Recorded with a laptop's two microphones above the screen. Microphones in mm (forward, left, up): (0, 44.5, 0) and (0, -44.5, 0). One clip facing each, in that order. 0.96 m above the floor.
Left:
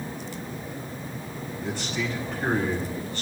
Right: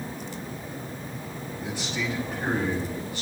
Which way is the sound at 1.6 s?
15° right (ahead or behind).